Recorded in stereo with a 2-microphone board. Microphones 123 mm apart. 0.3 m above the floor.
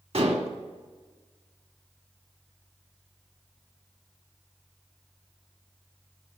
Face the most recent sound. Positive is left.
turn(degrees=-60)  # may be behind; listen again after turning